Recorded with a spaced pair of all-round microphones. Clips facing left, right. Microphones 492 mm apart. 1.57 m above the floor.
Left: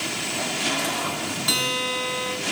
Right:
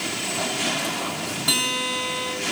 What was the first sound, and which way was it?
A guitar, 70° right (ahead or behind).